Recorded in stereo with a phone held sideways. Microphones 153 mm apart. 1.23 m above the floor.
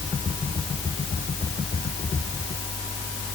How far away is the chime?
I don't hear a chime.